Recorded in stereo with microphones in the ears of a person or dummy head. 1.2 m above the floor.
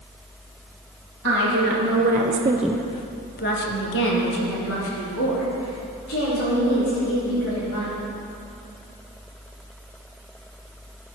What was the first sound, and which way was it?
A woman speaking, 65° right (ahead or behind).